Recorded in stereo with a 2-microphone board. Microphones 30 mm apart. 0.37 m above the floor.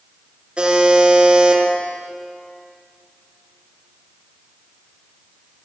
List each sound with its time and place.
0.6 s a buzzer: 35° right (ahead or behind), 6 m